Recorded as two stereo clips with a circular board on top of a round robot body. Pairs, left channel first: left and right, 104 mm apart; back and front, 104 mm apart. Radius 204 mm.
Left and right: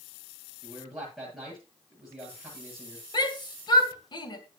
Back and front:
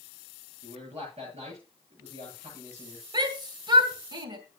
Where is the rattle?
I don't hear a rattle.